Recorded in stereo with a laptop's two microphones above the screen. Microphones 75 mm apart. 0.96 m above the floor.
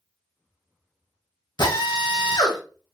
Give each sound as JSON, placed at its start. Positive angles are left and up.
{"t": 1.6, "sound": "a drill", "side_deg": 75, "distance_m": 0.8}